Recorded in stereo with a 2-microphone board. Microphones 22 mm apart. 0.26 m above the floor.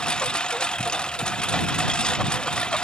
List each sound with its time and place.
0.0 s a lawn mower: 45° left (ahead or behind)